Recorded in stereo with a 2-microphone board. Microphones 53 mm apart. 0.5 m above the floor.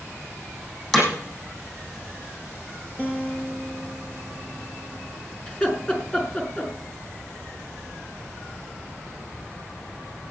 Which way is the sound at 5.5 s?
20° left (ahead or behind).